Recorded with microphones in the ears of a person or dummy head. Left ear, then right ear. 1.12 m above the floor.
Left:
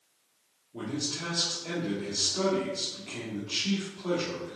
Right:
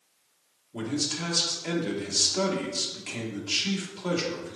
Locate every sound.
0.7 s a man speaking: 55° right (ahead or behind), 1.5 m